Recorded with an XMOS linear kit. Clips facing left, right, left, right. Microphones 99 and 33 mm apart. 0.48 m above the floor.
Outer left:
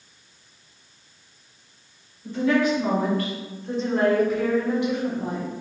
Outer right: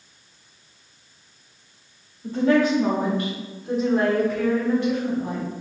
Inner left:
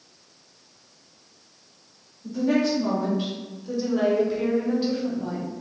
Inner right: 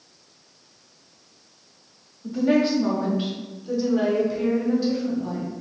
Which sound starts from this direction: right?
A woman speaking, at 2.2 s.